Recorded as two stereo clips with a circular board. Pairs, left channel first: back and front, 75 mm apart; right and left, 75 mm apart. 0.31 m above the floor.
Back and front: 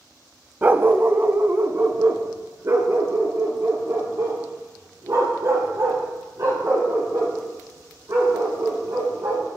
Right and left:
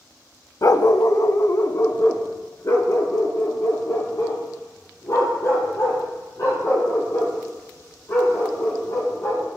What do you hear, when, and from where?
0.6 s a dog barking: 60° right, 0.5 m; by 9.4 s 45° right, 6 m